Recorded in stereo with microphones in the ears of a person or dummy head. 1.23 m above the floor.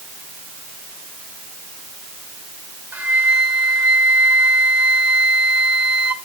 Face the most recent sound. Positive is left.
turn(degrees=-10)  # may be behind; listen again after turning